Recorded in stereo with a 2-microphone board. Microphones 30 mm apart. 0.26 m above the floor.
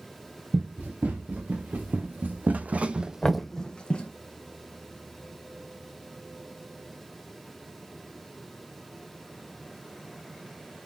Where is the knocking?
20° left (ahead or behind), 1.1 m.